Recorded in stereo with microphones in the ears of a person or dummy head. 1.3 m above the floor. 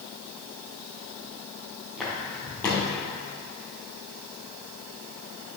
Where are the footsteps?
10° right (ahead or behind), 1.9 m; by 3.0 s 15° left (ahead or behind), 1.9 m.